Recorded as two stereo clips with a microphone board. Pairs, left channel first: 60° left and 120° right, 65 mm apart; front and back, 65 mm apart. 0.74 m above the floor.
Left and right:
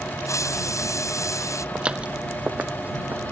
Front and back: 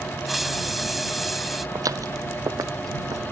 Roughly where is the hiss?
Left.